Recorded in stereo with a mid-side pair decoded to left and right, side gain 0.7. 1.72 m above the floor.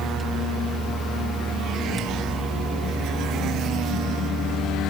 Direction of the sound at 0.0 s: 15° right.